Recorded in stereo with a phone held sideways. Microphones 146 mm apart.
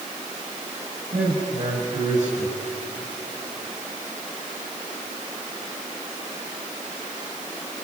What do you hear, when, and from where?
1.1 s a man speaking: 60° right (ahead or behind), 5 m